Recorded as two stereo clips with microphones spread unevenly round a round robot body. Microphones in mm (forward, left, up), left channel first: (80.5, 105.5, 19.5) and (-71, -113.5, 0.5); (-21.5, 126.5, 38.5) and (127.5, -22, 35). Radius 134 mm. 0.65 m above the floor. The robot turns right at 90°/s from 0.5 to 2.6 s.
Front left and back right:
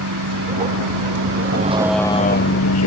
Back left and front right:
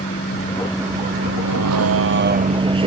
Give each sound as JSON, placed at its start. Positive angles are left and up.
{"t": 0.0, "sound": "a vehicle", "azimuth_deg": -160}